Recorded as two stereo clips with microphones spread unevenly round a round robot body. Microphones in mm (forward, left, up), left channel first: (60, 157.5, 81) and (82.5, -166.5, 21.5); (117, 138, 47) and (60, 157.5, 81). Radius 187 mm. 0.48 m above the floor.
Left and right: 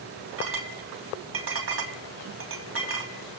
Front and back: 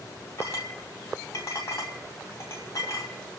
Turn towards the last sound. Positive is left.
turn(degrees=-40)